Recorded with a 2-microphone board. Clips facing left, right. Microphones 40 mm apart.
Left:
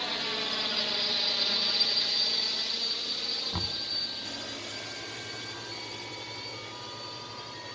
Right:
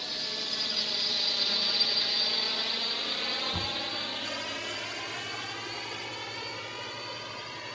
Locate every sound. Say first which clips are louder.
0.0 s a drone: left 4 dB; 40° left (ahead or behind); by 7.8 s 65° right (ahead or behind)
3.5 s knocking: right 3 dB; 15° left (ahead or behind)